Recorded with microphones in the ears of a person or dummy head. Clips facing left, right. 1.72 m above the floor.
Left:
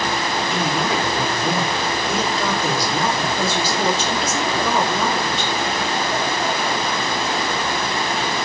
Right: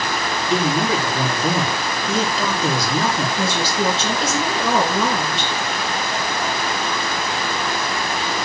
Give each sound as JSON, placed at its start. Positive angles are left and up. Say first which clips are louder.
{"t": 0.5, "sound": "a man speaking", "louder": "right 5 dB", "side_deg": -70, "distance_m": 4.5}
{"t": 3.4, "sound": "a woman speaking", "louder": "even", "side_deg": -85, "distance_m": 3.0}